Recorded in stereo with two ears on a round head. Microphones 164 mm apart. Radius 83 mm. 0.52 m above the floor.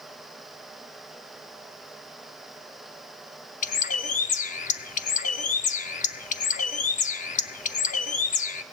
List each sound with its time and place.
3.6 s a bird: 40° left (ahead or behind), 0.6 m